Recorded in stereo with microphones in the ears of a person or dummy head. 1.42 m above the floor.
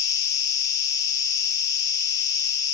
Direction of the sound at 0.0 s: 20° left (ahead or behind).